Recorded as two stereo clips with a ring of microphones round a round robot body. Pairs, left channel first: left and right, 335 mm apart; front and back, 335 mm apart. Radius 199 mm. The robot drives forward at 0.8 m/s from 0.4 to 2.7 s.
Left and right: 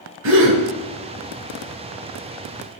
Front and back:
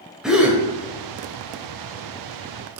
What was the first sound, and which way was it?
A gasp, 95° right.